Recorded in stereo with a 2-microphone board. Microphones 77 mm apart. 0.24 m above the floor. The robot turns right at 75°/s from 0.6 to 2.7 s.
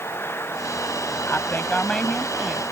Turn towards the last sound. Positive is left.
turn(degrees=-145)